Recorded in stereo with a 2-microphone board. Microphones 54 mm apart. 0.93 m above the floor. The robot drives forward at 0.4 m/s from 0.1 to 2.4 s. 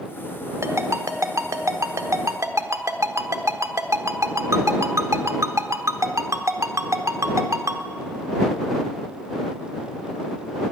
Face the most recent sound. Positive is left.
turn(degrees=-80)